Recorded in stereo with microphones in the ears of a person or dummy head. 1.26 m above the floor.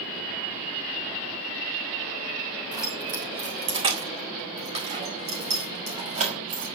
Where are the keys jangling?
20° right (ahead or behind), 3 m; by 6.7 s 35° right (ahead or behind), 4.5 m.